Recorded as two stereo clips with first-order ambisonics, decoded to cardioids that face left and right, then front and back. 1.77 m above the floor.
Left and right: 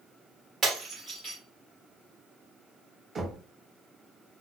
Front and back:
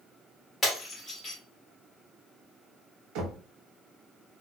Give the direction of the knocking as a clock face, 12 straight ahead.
5 o'clock.